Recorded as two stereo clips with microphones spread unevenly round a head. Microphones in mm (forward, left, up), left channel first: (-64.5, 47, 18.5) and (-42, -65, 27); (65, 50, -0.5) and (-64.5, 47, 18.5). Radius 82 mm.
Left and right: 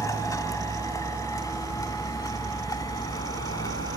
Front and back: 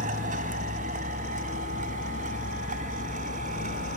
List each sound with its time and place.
0.0 s a vehicle: 165° left; by 4.0 s 160° left